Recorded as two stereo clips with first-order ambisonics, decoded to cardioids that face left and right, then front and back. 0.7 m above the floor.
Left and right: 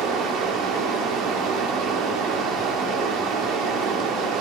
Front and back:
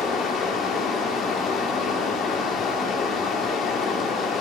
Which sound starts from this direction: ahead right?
Running water, at 0.0 s.